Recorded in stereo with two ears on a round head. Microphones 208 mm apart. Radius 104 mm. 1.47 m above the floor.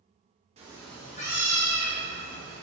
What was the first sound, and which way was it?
A cat meowing, 30° right (ahead or behind).